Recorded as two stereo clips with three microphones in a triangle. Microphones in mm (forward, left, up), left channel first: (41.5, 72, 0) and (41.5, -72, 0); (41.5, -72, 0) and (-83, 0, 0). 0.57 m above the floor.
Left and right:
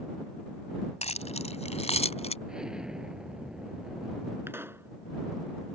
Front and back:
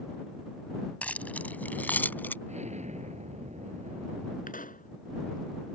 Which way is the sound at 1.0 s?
50° left.